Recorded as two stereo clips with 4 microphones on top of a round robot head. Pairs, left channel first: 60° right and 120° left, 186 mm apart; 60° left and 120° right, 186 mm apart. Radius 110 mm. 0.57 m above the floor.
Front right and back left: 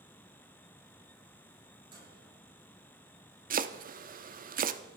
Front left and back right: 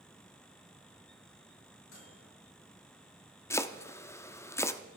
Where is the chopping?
130° left, 0.8 m.